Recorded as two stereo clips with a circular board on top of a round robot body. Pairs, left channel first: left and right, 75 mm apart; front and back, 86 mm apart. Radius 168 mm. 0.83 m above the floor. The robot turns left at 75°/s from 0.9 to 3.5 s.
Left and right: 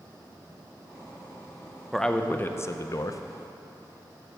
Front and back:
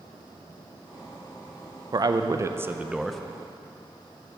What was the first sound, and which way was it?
A man speaking, straight behind.